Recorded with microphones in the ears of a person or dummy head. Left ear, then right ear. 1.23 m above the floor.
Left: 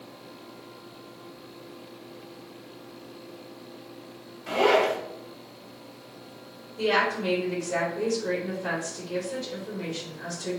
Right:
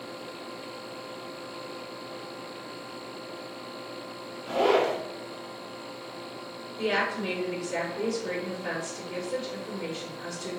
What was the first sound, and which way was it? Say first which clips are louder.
A zipper: left 2 dB; 60° left (ahead or behind).